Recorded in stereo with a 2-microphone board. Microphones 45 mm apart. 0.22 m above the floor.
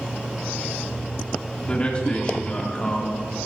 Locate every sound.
1.6 s a man speaking: 30° left (ahead or behind), 1.9 m